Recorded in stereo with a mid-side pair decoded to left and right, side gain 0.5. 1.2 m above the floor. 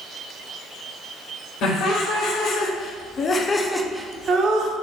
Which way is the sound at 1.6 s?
70° left.